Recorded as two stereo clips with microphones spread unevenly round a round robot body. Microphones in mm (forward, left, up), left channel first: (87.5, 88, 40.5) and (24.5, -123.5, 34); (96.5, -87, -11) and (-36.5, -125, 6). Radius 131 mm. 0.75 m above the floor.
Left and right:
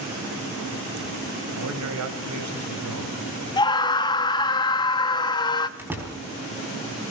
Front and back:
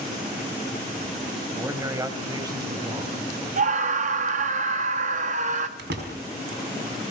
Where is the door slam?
170° left, 4 m.